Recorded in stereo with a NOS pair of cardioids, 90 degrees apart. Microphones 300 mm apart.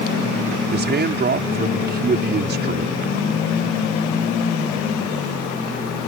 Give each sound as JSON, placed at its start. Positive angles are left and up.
{"t": 0.7, "sound": "a man speaking", "azimuth_deg": -35}